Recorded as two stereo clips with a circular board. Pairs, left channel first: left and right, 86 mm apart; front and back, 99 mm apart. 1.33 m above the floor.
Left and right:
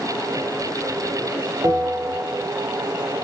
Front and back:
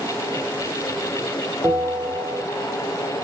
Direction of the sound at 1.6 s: 120° right.